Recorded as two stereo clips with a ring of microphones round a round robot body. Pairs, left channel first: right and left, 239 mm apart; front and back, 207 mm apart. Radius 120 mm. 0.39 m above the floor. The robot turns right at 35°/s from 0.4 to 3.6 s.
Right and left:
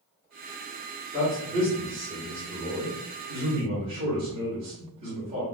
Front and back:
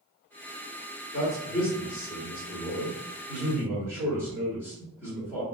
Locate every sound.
1.1 s a man speaking: 10° right, 1.4 m; by 5.4 s 75° left, 1.4 m